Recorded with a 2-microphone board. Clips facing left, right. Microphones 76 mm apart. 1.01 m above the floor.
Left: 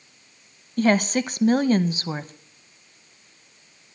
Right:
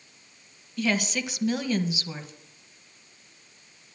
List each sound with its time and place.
0.8 s a woman speaking: 40° left (ahead or behind), 0.6 m